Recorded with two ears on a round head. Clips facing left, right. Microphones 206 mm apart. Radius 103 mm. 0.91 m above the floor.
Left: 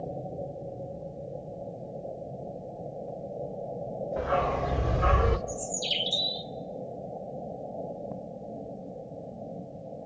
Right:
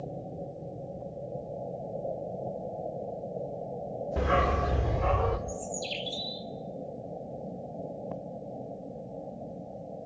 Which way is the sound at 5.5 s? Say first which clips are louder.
Left 1 dB; 20° left (ahead or behind).